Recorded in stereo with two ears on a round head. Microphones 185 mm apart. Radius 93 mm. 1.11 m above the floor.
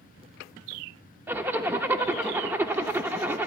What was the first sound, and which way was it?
A zipper, 10° right (ahead or behind).